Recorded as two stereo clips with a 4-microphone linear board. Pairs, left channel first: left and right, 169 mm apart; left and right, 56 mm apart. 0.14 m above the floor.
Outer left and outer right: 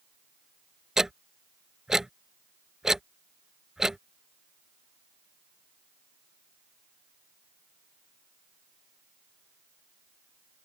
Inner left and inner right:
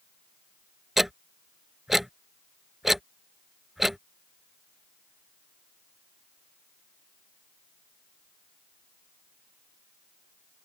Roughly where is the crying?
I don't hear crying.